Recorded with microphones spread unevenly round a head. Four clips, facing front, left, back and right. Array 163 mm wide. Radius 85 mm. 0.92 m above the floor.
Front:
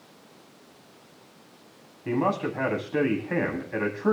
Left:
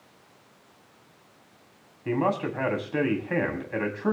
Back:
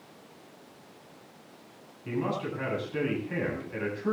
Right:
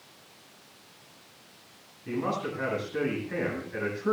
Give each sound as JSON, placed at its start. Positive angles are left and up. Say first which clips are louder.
{"t": 2.0, "sound": "a man speaking", "louder": "left 5 dB, front 6 dB", "azimuth_deg": 45, "distance_m": 9.0}